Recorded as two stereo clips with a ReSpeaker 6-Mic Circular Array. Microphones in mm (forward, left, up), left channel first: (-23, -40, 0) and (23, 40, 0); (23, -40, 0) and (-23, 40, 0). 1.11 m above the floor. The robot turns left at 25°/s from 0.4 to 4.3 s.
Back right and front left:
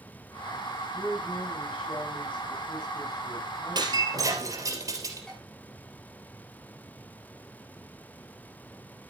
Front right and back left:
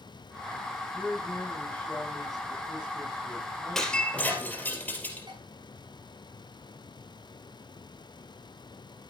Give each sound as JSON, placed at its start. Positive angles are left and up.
{"t": 0.9, "sound": "a man speaking", "azimuth_deg": -110, "distance_m": 6.0}
{"t": 3.8, "sound": "breaking glass", "azimuth_deg": 25, "distance_m": 3.0}
{"t": 5.3, "sound": "dishes clattering", "azimuth_deg": 155, "distance_m": 6.0}